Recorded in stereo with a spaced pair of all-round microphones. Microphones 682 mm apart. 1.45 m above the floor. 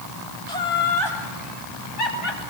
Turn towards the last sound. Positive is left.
turn(degrees=90)